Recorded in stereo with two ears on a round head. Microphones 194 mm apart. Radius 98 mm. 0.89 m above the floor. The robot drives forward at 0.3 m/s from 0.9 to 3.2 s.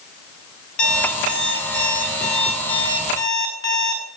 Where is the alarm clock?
40° left (ahead or behind), 5.5 m; by 4.0 s 45° left (ahead or behind), 5 m.